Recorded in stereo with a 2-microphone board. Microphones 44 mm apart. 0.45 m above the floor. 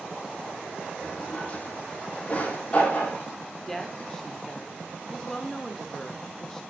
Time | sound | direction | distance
1.0 | a drawer | 35° left (ahead or behind) | 6 m
3.7 | a woman speaking | 10° left (ahead or behind) | 0.9 m